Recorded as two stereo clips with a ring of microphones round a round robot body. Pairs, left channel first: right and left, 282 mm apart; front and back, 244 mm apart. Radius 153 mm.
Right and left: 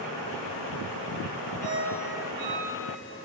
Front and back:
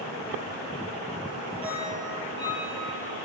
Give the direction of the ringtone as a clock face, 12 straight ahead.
8 o'clock.